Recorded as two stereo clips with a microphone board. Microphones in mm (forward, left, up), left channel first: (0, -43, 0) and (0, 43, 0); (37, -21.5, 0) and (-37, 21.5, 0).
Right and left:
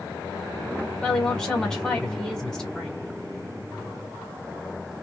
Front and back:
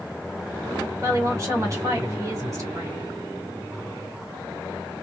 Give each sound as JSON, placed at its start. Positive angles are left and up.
{"t": 1.0, "sound": "a woman speaking", "azimuth_deg": -170, "distance_m": 1.6}